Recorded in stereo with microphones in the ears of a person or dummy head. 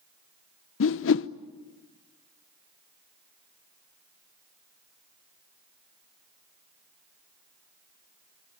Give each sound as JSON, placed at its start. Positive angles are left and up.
{"t": 0.8, "sound": "a whoosh", "side_deg": 70, "distance_m": 0.7}